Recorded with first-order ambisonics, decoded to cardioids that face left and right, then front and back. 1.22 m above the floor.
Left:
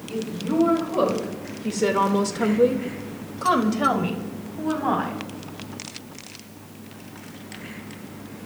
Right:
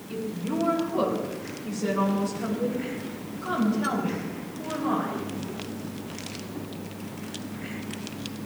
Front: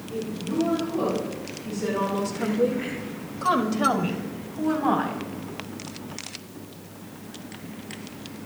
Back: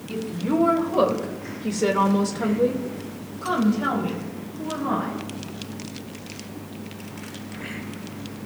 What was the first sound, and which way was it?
A woman speaking, 165° left.